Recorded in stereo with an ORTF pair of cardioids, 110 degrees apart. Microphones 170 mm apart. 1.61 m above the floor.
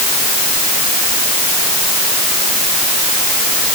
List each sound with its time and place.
Only background noise.